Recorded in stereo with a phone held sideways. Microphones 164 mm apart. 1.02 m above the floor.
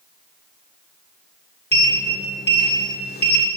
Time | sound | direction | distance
1.7 | a sliding door | 85° left | 1.7 m